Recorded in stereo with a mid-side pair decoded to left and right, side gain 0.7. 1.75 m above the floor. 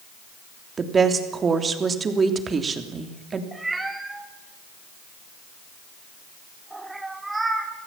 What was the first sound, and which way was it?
A woman speaking, 25° right.